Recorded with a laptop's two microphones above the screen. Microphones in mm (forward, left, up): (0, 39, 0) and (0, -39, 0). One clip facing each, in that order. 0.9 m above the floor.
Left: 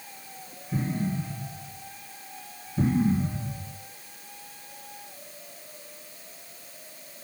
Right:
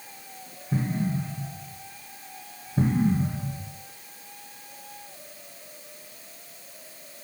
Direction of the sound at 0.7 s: 55° right (ahead or behind).